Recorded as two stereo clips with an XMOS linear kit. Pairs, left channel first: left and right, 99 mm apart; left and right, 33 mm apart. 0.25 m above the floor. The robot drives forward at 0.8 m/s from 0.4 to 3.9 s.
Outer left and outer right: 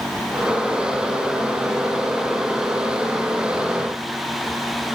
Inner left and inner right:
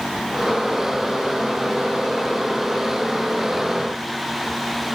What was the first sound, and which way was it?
Only background noise.